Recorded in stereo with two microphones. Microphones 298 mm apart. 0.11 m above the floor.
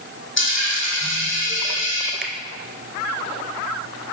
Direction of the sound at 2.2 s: 40° left (ahead or behind).